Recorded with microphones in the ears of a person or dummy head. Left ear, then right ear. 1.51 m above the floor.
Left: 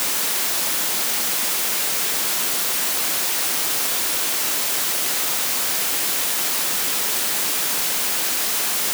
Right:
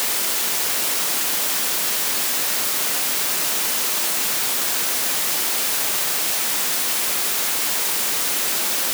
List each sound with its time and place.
Only background noise.